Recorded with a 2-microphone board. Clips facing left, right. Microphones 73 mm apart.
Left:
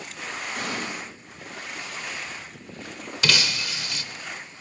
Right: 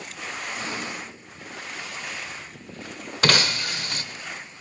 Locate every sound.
0.5 s an explosion: 70° left (ahead or behind), 3.5 m
3.2 s breaking glass: 45° right (ahead or behind), 0.6 m